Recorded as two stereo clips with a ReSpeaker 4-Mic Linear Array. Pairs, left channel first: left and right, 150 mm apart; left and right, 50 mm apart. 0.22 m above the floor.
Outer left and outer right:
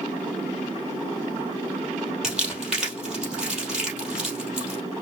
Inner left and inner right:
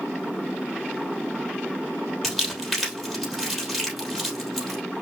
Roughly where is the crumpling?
Centre.